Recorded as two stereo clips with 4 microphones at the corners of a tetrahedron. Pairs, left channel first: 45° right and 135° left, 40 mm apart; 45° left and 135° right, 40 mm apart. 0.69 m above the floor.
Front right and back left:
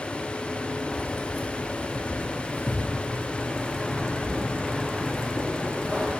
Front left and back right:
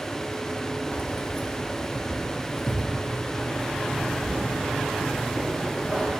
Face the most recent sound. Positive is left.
turn(degrees=-85)